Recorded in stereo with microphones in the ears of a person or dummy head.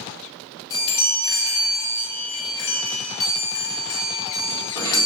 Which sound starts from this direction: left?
A chime, at 0.7 s.